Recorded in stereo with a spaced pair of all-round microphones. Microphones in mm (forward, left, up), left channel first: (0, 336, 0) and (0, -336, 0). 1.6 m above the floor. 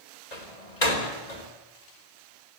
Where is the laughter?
I don't hear laughter.